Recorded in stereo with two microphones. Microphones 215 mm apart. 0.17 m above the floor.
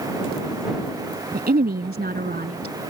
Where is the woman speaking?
45° right (ahead or behind).